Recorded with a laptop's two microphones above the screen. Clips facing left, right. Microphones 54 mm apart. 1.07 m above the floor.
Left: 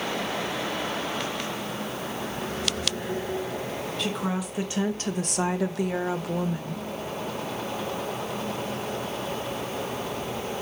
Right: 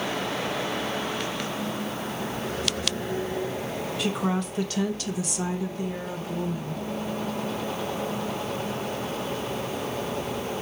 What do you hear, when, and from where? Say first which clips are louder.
4.0 s a woman speaking: right 3 dB; 5° right (ahead or behind), 1.0 m; by 6.8 s 75° left (ahead or behind), 1.4 m